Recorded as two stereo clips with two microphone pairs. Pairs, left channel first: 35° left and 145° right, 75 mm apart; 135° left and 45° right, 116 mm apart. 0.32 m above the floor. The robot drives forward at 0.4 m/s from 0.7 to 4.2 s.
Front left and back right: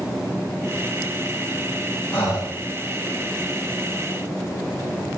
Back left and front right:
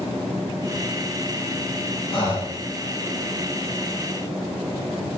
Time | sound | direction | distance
2.1 | breathing | 95° left | 5.5 m